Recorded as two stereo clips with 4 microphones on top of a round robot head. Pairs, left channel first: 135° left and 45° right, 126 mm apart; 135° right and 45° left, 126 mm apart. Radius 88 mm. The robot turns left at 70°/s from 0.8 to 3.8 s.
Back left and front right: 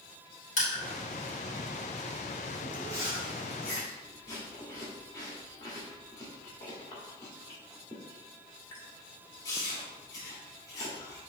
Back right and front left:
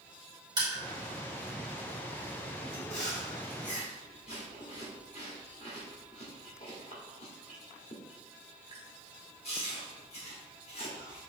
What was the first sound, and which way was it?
Crushing, 105° left.